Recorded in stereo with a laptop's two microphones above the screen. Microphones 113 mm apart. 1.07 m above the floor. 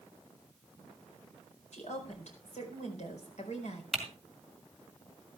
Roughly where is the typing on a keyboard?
Centre.